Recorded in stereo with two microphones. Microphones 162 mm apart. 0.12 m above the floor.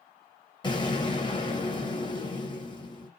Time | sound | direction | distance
0.6 | an explosion | 30° left (ahead or behind) | 1.8 m